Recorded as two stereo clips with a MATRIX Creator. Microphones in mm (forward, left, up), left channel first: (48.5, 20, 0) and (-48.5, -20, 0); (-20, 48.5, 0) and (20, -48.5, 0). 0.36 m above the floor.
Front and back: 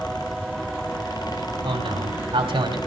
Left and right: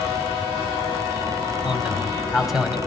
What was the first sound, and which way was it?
A man speaking, 150° right.